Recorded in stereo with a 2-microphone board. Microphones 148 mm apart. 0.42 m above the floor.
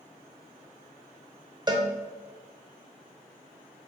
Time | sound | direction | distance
1.7 | a cowbell | 30° right (ahead or behind) | 0.5 m